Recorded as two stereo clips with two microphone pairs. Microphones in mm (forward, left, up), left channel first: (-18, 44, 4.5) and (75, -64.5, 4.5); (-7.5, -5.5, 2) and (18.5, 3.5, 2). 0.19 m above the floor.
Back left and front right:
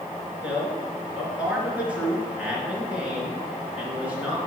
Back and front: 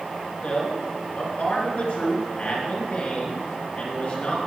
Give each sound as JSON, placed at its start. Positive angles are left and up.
{"t": 0.4, "sound": "a man speaking", "azimuth_deg": -130, "distance_m": 3.0}